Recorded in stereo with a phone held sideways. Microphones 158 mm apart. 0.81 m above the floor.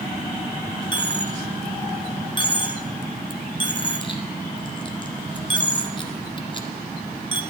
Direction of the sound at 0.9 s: 30° left (ahead or behind).